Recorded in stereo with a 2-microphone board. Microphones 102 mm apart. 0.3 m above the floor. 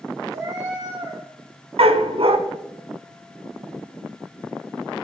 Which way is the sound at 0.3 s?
85° right.